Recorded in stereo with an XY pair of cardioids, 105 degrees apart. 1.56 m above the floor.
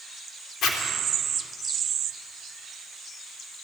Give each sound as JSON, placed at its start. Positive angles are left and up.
{"t": 0.6, "sound": "a zipper", "azimuth_deg": 65, "distance_m": 3.5}